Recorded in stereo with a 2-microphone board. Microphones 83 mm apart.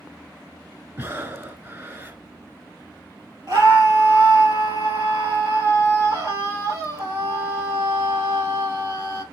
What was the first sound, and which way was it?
Breathing, 25° right (ahead or behind).